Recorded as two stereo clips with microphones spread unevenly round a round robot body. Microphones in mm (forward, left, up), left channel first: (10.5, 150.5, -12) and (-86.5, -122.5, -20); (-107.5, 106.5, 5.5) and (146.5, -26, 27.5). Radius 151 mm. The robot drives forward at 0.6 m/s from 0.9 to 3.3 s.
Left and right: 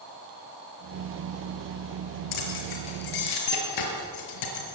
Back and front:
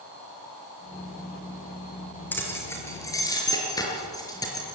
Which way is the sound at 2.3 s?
70° left.